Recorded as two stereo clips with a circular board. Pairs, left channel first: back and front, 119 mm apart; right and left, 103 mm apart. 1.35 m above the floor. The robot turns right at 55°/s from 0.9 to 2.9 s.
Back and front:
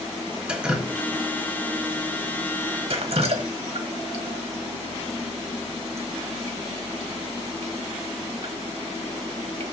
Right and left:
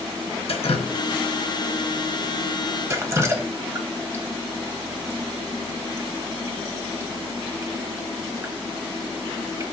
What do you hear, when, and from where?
0.5 s dripping: 80° right, 1.2 m; by 9.7 s 30° left, 1.2 m